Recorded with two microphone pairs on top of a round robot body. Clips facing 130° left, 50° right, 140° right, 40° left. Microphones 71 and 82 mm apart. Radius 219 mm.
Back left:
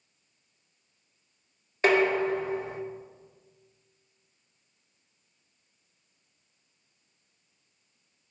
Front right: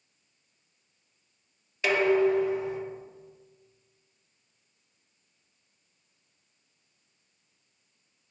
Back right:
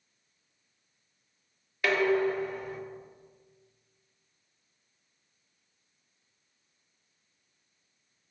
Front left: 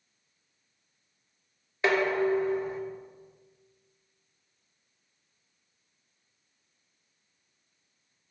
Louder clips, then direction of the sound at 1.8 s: Even, front left 1 dB; 100° left.